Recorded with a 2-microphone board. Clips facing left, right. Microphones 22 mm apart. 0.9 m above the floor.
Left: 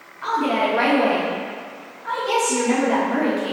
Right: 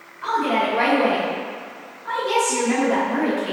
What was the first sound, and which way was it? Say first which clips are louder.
A woman speaking: even; 60° left (ahead or behind).